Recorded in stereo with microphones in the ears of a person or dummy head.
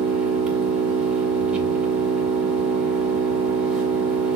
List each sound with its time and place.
0.0 s an engine running: 5° right (ahead or behind), 3 m